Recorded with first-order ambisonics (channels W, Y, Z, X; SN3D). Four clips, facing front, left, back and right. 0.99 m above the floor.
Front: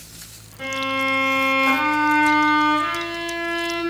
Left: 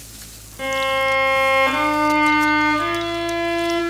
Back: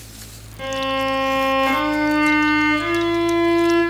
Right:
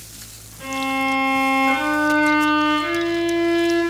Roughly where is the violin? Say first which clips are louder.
Left 3 dB, back 1 dB; left.